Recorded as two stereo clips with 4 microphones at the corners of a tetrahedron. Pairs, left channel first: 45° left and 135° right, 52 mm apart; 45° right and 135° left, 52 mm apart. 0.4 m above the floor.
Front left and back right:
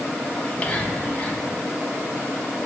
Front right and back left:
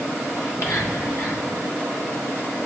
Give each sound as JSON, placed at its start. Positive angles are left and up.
{"t": 0.4, "sound": "whispering", "azimuth_deg": -20, "distance_m": 2.5}